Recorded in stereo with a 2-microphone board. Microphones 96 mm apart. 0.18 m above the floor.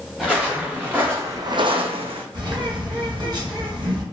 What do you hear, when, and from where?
0.2 s footsteps: centre (ahead or behind), 1.4 m; by 2.2 s 65° right (ahead or behind), 0.7 m
2.3 s a bird: 45° right (ahead or behind), 1.8 m